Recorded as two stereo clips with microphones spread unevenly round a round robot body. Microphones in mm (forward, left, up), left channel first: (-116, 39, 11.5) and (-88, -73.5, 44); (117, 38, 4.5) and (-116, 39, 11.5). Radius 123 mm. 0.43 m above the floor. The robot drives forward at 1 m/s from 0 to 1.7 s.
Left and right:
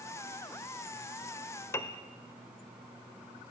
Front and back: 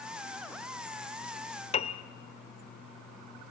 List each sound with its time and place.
1.7 s a piano: 55° left, 1.1 m